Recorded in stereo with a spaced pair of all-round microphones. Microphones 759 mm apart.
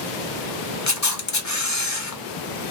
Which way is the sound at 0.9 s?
25° left (ahead or behind).